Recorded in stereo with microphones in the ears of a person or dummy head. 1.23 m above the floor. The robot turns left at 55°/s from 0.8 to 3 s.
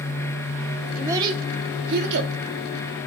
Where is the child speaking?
10° right (ahead or behind), 1.3 m; by 2.3 s 70° right (ahead or behind), 1.3 m.